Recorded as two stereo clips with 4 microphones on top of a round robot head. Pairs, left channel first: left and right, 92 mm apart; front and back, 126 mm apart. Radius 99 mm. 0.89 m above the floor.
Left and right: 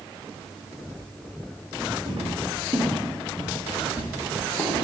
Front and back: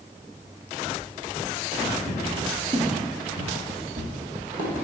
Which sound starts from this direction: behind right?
Footsteps, at 2.1 s.